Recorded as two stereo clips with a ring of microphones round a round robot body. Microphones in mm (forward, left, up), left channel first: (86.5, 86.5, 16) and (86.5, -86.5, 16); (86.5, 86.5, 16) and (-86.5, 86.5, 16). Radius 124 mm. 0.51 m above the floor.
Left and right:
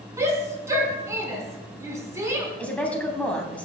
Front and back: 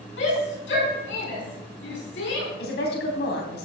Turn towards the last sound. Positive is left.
turn(degrees=10)